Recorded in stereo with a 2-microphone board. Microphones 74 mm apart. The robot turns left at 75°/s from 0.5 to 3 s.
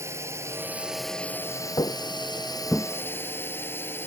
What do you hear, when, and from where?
0.0 s a drone: 140° right; by 4.1 s 30° left
1.8 s footsteps: 70° left (ahead or behind); by 2.9 s 10° left (ahead or behind)